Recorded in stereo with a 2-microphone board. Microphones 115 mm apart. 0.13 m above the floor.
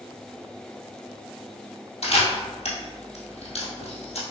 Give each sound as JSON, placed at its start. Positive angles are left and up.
{"t": 2.0, "sound": "a camera shutter", "side_deg": 70, "distance_m": 1.7}